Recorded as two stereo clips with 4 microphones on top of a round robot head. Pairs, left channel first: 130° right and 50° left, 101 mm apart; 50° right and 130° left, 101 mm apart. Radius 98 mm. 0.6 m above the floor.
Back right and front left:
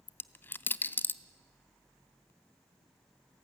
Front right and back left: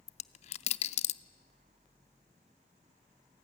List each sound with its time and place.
0.1 s a dropped coin: 60° right, 0.5 m